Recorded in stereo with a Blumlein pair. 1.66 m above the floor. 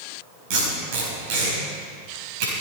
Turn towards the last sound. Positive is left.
turn(degrees=-45)